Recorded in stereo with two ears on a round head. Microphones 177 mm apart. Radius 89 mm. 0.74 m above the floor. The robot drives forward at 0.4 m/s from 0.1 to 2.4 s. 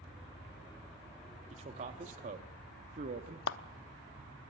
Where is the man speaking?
35° right (ahead or behind), 1.6 m; by 3.4 s 40° right (ahead or behind), 1.4 m.